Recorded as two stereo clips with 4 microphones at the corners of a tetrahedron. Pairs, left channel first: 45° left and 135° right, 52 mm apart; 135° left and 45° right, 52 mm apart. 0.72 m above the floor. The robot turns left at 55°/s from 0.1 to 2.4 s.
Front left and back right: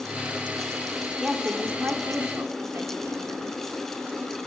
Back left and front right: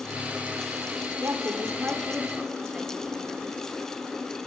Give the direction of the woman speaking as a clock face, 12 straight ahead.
2 o'clock.